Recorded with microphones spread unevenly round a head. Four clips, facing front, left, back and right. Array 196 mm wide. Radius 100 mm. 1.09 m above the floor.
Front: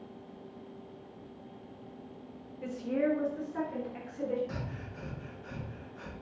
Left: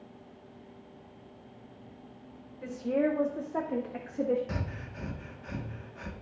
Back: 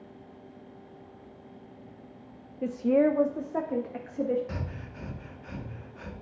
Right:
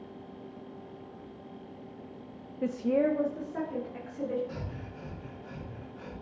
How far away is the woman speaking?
About 0.6 m.